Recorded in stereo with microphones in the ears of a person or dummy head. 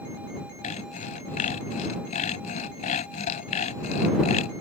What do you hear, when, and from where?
0.6 s sawing: 40° left (ahead or behind)